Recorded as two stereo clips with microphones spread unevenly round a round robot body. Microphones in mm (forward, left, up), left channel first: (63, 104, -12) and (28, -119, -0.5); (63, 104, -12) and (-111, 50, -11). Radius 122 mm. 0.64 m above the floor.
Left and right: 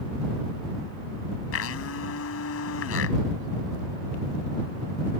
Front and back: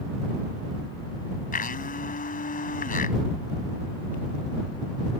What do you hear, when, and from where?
1.5 s a blender: 60° left